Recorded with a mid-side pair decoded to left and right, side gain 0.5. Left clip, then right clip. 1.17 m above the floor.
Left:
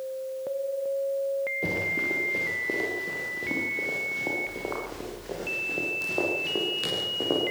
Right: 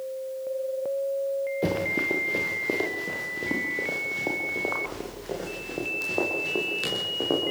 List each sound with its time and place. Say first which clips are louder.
1.6 s running footsteps: right 1 dB; 35° right, 7.5 m; by 7.5 s 5° right, 13 m